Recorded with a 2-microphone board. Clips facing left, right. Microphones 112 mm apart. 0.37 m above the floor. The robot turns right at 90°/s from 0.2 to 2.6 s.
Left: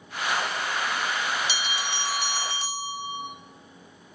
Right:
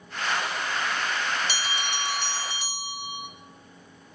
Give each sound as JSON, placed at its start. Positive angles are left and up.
{"t": 1.5, "sound": "a bell", "azimuth_deg": -55, "distance_m": 0.5}